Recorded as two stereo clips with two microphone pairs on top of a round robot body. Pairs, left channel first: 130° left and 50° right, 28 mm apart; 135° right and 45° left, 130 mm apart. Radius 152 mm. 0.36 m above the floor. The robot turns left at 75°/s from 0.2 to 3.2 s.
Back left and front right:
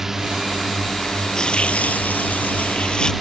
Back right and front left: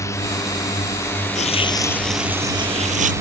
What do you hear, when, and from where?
0.0 s a drone: 105° right; by 3.2 s 30° left
1.4 s tearing paper: 165° right; by 3.1 s 65° left